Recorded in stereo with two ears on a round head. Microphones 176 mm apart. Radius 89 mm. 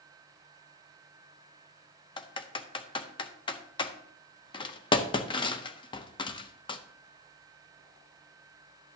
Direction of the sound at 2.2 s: 25° left (ahead or behind).